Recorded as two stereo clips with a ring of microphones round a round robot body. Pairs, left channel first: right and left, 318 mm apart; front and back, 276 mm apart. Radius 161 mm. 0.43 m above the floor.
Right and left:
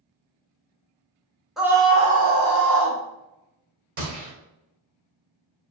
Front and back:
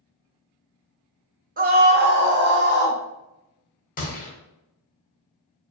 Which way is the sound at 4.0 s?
55° left.